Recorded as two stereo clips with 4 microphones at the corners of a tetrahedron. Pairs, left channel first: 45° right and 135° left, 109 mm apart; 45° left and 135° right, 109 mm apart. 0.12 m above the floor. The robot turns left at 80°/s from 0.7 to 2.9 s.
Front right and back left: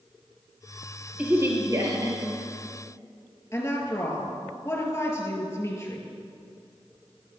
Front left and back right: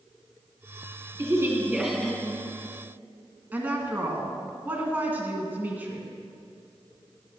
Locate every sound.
1.2 s a woman speaking: 160° right, 1.5 m; by 2.4 s 100° left, 1.5 m
3.5 s a woman speaking: 80° right, 1.8 m